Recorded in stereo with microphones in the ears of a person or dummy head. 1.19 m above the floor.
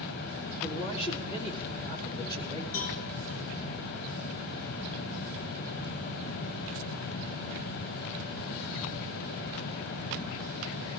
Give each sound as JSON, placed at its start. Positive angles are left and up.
{"t": 0.6, "sound": "a man speaking", "side_deg": 40, "distance_m": 3.5}
{"t": 2.7, "sound": "a cowbell", "side_deg": 80, "distance_m": 5.5}